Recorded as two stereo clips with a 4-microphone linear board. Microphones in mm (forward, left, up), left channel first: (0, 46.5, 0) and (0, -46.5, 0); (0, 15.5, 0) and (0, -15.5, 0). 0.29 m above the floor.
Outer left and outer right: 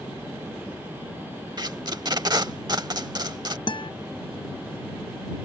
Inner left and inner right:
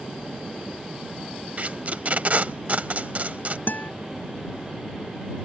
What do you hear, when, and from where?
1.6 s tape being pulled: 45° right (ahead or behind)
3.7 s a guitar: 55° left (ahead or behind)